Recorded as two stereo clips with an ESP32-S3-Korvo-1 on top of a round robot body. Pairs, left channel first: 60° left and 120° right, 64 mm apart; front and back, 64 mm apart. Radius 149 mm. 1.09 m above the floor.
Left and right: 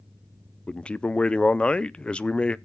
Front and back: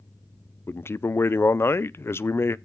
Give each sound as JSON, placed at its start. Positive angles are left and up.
{"t": 0.7, "sound": "a man speaking", "azimuth_deg": -5, "distance_m": 0.6}